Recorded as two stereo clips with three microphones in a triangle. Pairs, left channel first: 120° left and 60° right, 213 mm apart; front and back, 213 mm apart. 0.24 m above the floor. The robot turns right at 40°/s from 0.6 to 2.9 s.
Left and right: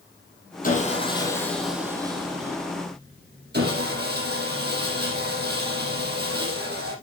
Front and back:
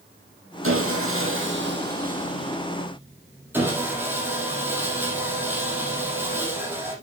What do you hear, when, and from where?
0.6 s sawing: 170° left, 5 m; by 6.9 s 100° right, 5 m